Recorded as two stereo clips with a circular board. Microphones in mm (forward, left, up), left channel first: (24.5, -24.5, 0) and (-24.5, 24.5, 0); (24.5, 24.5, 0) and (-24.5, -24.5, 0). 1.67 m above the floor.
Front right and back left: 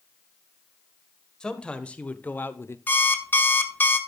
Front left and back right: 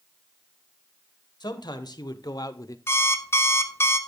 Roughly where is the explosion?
No explosion in this recording.